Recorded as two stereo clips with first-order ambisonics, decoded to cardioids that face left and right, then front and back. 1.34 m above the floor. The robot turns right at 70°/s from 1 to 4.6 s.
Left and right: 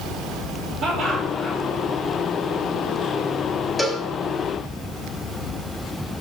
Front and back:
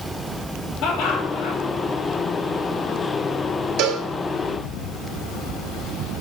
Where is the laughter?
45° right, 2.5 m; by 1.6 s 5° right, 2.5 m.